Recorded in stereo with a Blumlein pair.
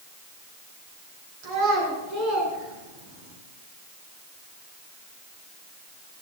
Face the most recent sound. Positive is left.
turn(degrees=-45)